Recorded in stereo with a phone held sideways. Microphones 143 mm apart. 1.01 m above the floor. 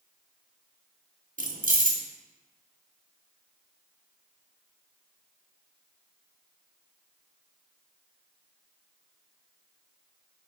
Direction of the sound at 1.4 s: 75° right (ahead or behind).